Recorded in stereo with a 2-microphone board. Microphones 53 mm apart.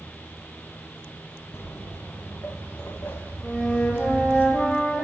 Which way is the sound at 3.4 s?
30° left (ahead or behind).